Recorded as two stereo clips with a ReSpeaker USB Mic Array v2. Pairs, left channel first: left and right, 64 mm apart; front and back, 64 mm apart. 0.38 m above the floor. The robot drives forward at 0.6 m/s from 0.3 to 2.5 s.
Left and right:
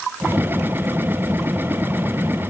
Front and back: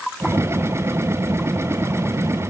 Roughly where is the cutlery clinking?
No cutlery clinking in this recording.